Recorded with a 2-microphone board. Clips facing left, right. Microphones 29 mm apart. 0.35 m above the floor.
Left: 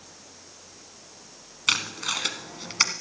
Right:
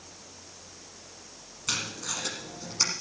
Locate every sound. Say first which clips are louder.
1.7 s tape being pulled: left 7 dB; 70° left (ahead or behind), 1.1 m